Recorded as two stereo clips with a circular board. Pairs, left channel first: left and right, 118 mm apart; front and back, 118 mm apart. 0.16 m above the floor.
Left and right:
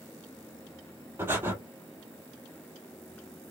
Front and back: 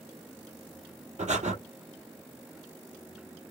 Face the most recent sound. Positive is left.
turn(degrees=-160)